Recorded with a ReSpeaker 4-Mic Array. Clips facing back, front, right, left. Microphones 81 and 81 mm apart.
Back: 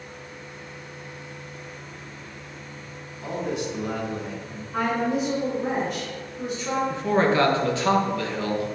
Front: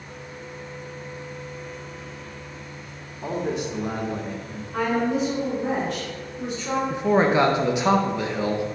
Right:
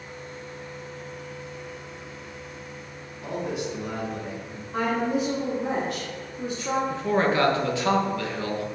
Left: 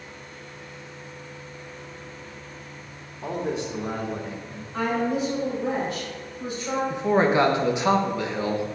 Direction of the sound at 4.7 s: 95° right.